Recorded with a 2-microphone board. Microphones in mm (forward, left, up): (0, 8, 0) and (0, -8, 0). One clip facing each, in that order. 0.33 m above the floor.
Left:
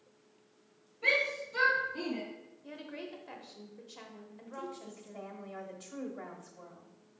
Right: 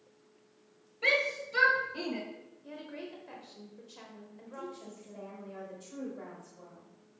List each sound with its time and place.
1.0 s a shout: 45° right (ahead or behind), 1.5 m
2.6 s a woman speaking: 10° left (ahead or behind), 0.9 m
4.5 s a woman speaking: 25° left (ahead or behind), 1.2 m